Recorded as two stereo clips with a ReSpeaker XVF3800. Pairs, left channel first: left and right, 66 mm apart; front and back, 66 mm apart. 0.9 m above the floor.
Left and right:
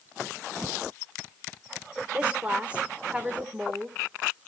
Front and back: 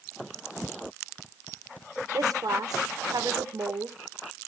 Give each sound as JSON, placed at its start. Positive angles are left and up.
{"t": 2.1, "sound": "a woman speaking", "azimuth_deg": -160, "distance_m": 2.5}